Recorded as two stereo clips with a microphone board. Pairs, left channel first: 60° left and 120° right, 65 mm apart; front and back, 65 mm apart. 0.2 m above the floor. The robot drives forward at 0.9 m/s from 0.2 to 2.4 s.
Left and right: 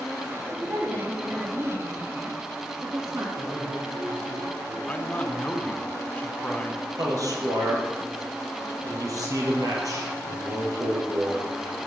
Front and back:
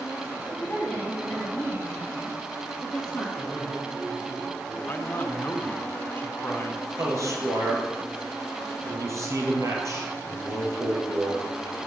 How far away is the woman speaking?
About 9.5 m.